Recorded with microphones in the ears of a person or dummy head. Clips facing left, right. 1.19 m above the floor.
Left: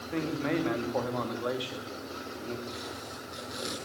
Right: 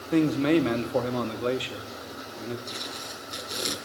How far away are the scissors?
No scissors in this recording.